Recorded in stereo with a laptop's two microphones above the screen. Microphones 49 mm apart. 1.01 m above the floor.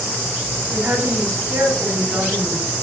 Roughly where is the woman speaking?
Right.